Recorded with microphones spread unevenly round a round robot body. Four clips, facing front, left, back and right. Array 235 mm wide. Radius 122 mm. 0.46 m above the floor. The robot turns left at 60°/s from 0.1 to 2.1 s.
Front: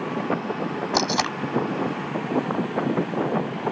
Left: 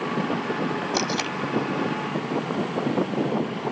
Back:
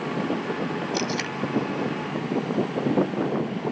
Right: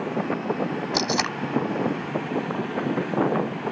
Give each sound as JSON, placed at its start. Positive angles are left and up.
{"t": 0.9, "sound": "tape being pulled", "azimuth_deg": 10}